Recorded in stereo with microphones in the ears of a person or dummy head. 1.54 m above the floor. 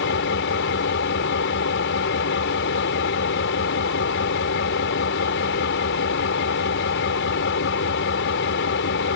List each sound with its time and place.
0.0 s an engine running: 65° left (ahead or behind)